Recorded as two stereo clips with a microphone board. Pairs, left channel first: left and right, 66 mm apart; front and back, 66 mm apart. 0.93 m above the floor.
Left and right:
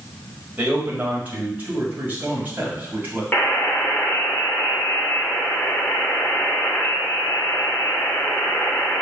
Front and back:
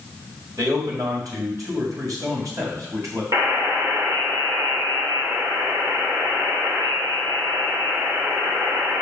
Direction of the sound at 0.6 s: 155° right.